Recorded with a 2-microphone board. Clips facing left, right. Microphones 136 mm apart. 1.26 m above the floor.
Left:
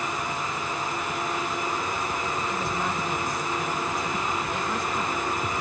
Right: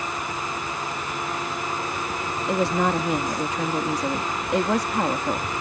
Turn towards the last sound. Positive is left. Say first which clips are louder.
# right 7 dB
turn(degrees=-75)  # may be behind; listen again after turning